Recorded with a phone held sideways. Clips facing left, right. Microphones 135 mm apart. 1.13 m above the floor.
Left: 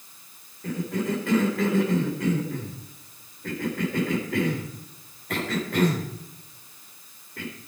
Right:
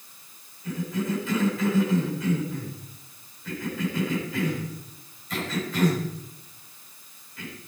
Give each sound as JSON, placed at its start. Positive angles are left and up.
{"t": 0.6, "sound": "a cough", "side_deg": 60, "distance_m": 4.0}